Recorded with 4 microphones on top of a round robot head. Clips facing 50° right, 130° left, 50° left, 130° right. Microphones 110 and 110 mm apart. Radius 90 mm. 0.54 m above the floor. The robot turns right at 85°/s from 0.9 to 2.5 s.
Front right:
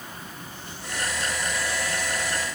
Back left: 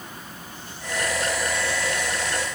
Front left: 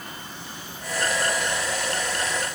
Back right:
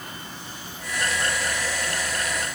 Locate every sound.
Only background noise.